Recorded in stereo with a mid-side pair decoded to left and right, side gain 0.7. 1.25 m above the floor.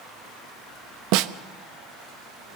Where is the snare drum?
65° right, 0.9 m.